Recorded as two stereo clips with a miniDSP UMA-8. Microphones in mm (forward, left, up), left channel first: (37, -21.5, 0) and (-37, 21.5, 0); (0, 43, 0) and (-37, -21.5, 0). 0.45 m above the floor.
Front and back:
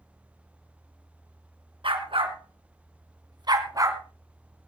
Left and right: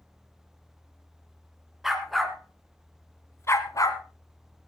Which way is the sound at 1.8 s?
155° left.